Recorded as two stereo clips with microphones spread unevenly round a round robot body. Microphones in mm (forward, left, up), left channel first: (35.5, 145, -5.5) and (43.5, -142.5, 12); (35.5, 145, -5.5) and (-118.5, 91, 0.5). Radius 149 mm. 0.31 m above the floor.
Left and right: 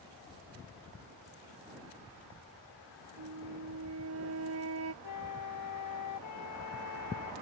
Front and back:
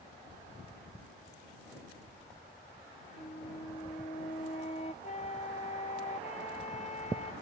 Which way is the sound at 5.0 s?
65° left.